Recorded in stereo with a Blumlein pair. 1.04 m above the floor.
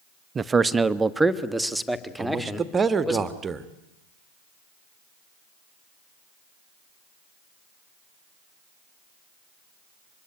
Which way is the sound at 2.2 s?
15° right.